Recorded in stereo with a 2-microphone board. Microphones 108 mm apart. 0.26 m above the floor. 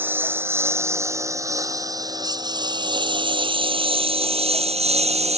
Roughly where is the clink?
I don't hear a clink.